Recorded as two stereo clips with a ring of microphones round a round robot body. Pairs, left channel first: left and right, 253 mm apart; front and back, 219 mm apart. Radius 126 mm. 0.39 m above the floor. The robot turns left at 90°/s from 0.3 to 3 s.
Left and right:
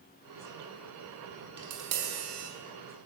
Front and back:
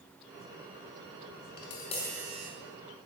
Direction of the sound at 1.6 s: 40° right.